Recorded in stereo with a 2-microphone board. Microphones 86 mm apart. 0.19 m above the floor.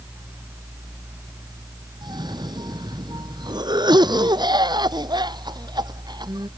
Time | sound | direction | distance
2.0 | a cough | 55° right (ahead or behind) | ?